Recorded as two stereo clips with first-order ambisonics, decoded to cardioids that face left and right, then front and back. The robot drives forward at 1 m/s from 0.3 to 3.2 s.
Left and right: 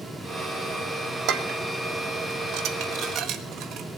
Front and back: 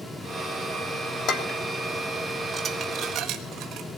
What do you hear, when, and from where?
1.3 s dishes clattering: 50° right, 1.4 m; by 3.9 s 135° right, 1.5 m